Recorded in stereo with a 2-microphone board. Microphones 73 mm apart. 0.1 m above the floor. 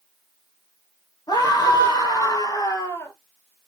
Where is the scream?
70° left (ahead or behind), 3 m; by 3.1 s 30° left (ahead or behind), 1.6 m.